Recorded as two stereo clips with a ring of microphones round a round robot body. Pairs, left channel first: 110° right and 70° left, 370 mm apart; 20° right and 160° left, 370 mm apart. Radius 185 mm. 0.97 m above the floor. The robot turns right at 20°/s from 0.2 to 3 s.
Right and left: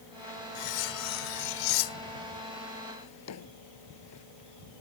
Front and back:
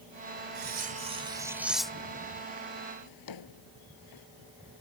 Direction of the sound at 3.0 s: 60° right.